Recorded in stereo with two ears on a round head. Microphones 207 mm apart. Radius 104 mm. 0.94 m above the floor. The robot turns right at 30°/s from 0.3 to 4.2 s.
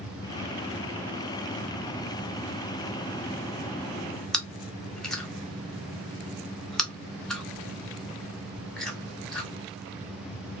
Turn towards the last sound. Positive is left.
turn(degrees=5)  # may be behind; listen again after turning